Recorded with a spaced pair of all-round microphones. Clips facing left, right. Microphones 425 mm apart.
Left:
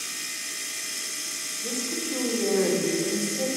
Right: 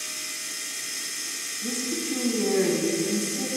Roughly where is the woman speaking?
Right.